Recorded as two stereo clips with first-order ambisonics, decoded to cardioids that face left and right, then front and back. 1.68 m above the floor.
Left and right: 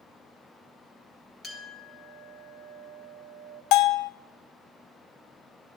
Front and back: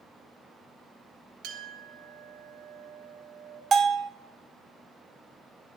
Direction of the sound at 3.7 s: 115° left.